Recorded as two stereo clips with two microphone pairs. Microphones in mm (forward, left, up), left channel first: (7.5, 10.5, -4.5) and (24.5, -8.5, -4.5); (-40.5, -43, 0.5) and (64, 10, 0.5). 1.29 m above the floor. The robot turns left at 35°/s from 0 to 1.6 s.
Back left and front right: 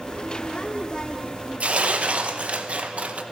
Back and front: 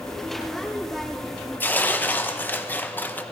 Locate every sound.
1.6 s tearing paper: 80° right, 0.6 m